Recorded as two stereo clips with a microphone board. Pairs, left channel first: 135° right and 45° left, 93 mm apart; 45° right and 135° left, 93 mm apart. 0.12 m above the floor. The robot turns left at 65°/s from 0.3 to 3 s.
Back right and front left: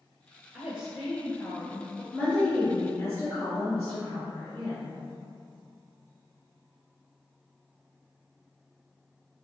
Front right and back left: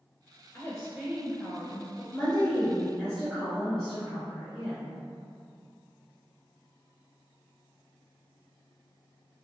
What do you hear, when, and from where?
0.5 s a woman speaking: 20° right, 1.8 m; by 2.0 s 115° right, 1.8 m
2.1 s a woman speaking: 70° right, 1.7 m; by 5.0 s 130° right, 1.7 m